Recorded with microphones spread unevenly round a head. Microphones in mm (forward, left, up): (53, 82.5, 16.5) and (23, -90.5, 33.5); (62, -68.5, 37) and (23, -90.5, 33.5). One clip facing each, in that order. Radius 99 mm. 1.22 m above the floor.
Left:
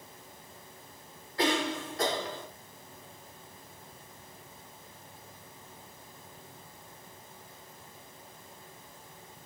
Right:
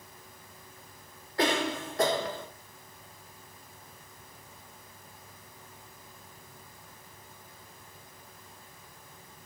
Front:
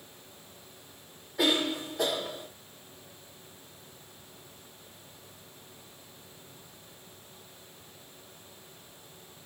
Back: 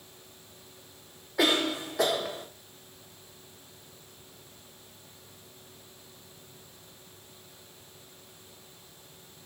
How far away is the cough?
About 0.7 m.